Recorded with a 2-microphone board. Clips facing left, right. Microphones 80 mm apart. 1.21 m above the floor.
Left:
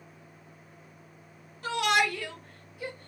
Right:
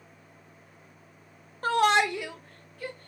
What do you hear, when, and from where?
1.6 s a shout: 45° right (ahead or behind), 0.8 m; by 3.1 s 25° left (ahead or behind), 0.9 m